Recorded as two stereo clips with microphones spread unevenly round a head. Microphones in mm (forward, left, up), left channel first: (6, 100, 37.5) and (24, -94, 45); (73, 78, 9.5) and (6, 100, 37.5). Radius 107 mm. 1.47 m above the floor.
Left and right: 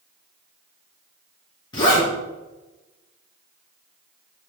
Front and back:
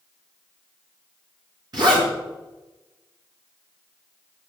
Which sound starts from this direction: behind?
A zipper, at 1.7 s.